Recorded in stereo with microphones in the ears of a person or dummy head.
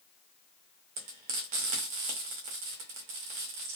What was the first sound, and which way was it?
Frying, 40° right (ahead or behind).